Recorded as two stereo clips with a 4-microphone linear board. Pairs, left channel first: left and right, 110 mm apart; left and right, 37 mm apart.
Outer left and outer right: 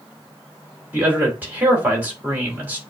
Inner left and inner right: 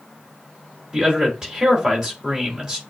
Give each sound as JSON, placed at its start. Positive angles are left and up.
{"t": 0.9, "sound": "a man speaking", "side_deg": -15, "distance_m": 3.0}